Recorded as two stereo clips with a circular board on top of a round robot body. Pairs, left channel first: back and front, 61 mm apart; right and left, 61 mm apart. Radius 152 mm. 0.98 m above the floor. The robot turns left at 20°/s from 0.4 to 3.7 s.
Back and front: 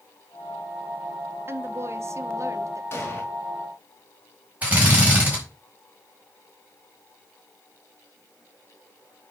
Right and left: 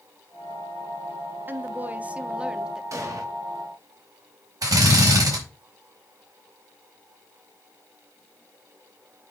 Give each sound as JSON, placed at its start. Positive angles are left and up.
{"t": 1.5, "sound": "a woman speaking", "azimuth_deg": 40, "distance_m": 1.2}
{"t": 2.9, "sound": "an explosion", "azimuth_deg": 125, "distance_m": 2.0}
{"t": 4.6, "sound": "a drill", "azimuth_deg": 65, "distance_m": 4.5}